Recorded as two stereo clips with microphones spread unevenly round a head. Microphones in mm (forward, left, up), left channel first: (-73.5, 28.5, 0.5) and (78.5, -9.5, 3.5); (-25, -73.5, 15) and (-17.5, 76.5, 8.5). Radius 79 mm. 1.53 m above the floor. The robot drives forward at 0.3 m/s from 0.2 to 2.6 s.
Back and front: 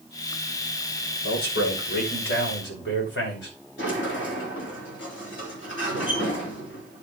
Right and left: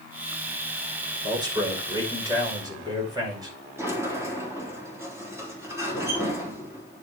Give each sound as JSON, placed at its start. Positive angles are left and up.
{"t": 1.2, "sound": "a man speaking", "azimuth_deg": 150, "distance_m": 4.5}
{"t": 3.8, "sound": "a sliding door", "azimuth_deg": 160, "distance_m": 3.0}